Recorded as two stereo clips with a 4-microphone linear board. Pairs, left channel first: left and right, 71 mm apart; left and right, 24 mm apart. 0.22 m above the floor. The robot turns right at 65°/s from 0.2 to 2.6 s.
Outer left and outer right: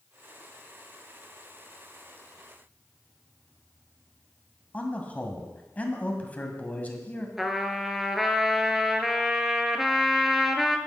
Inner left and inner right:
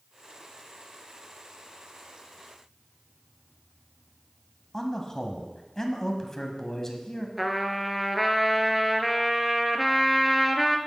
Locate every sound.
4.7 s a man speaking: 25° left (ahead or behind), 1.7 m
7.4 s a trumpet: 5° right (ahead or behind), 0.9 m